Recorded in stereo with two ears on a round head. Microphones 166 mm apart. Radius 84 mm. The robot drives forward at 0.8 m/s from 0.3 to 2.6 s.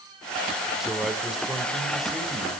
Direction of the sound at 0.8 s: Centre (ahead or behind).